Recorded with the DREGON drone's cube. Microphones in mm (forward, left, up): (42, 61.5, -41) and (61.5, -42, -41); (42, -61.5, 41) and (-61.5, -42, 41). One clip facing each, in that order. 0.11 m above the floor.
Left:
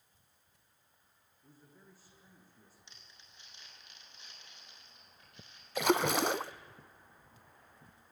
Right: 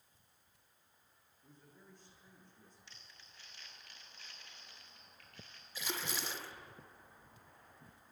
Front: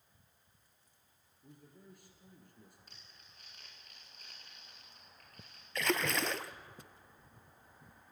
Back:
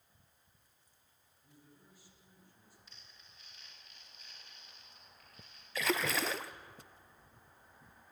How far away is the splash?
About 0.7 m.